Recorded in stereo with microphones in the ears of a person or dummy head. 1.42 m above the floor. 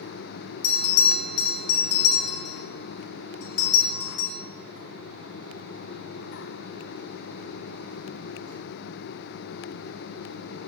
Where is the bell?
85° left, 3.5 m.